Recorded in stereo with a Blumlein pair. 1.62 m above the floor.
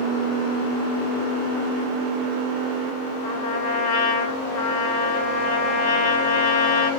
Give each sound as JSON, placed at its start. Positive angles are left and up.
{"t": 3.2, "sound": "a trumpet", "azimuth_deg": 50, "distance_m": 3.5}